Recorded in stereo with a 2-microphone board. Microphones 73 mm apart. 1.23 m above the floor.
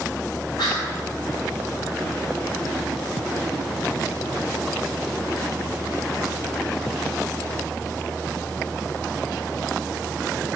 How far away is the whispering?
About 1.1 m.